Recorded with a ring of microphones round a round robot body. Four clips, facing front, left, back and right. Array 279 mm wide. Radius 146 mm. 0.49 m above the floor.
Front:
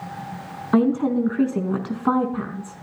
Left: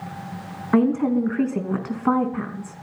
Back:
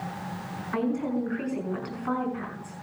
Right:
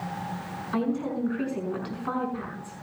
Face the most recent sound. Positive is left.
turn(degrees=40)